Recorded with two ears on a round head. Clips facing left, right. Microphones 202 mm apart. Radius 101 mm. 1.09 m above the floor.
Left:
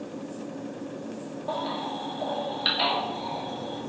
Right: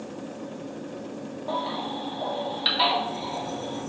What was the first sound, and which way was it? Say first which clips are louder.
A baby crying: right 1 dB; 5° left (ahead or behind).